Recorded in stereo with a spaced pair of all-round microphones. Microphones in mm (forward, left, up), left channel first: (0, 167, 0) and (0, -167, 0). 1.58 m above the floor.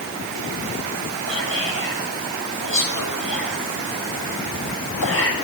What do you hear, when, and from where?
1.3 s whispering: 85° left, 8 m